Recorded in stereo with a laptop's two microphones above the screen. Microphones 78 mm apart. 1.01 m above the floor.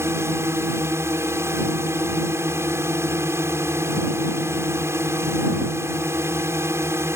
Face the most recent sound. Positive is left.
turn(degrees=-35)  # may be behind; listen again after turning